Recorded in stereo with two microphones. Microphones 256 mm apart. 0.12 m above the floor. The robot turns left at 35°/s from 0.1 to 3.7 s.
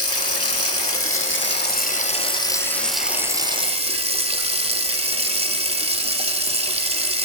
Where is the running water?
100° left, 0.8 m; by 7.2 s 25° right, 0.8 m.